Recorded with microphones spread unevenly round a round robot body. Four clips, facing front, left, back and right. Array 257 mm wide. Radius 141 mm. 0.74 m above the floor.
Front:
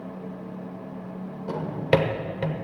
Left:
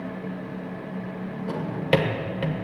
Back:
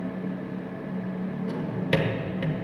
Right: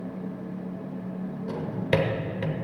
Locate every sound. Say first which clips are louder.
1.5 s a drawer: left 3 dB, front 6 dB; 25° left, 1.3 m